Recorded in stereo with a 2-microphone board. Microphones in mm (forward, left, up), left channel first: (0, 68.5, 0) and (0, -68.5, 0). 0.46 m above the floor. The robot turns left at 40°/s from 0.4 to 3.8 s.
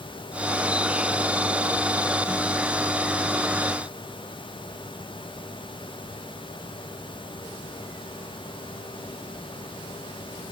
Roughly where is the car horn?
I don't hear a car horn.